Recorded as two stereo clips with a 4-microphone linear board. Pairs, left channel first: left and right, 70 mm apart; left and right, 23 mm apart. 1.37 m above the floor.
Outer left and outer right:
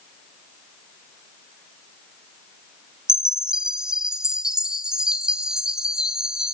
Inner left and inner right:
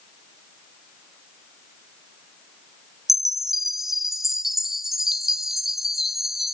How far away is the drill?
I don't hear a drill.